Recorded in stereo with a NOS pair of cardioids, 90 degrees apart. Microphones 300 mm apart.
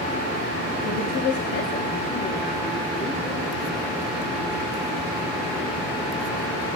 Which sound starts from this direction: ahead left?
A woman speaking, at 0.8 s.